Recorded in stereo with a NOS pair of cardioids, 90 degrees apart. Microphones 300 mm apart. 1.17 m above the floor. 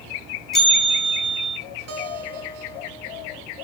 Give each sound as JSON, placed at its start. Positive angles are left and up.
{"t": 0.5, "sound": "a bell", "azimuth_deg": 0, "distance_m": 5.0}
{"t": 1.9, "sound": "a guitar", "azimuth_deg": -55, "distance_m": 6.0}